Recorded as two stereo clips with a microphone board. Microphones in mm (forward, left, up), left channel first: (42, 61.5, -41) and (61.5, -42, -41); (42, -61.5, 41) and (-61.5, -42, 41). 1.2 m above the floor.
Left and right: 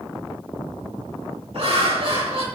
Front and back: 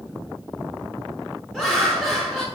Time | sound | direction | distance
1.5 | laughter | 95° right | 4.5 m